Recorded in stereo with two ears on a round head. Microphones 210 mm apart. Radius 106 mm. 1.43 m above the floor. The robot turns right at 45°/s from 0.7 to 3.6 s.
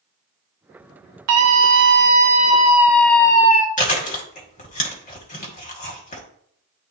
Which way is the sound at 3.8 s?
35° left (ahead or behind).